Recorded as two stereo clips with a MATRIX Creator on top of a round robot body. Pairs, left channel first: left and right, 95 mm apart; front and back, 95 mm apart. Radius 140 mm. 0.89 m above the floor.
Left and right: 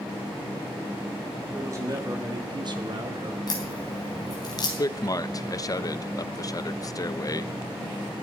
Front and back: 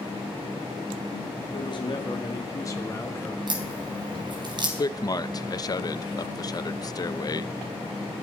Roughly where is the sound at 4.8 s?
Ahead left.